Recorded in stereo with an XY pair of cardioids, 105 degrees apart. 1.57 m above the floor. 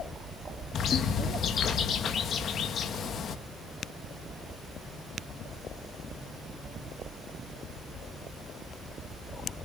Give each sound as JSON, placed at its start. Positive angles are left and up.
{"t": 0.7, "sound": "a bird", "azimuth_deg": 60, "distance_m": 2.0}